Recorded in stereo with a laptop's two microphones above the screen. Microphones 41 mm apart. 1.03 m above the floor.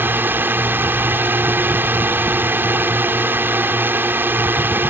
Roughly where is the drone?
Right.